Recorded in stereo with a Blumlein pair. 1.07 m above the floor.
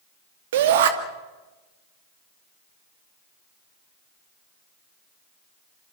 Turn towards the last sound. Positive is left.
turn(degrees=-55)